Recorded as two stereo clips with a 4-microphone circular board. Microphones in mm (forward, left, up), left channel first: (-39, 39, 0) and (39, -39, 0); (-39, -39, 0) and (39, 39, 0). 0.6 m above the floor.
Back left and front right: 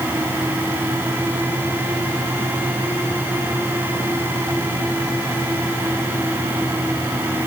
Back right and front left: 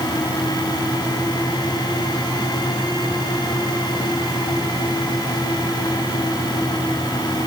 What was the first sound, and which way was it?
Only background noise.